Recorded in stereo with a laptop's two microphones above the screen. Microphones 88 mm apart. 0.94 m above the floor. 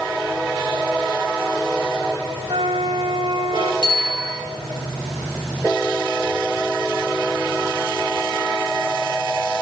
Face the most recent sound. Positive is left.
turn(degrees=-60)  # may be behind; listen again after turning